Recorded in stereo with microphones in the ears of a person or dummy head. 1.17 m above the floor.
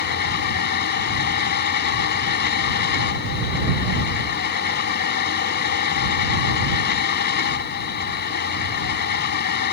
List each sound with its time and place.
0.0 s a fan: 50° left (ahead or behind)